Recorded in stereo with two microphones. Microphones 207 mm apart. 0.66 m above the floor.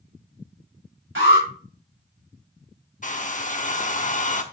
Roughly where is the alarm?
Right.